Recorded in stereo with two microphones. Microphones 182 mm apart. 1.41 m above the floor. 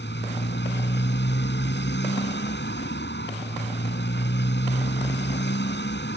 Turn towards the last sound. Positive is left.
turn(degrees=75)  # may be behind; listen again after turning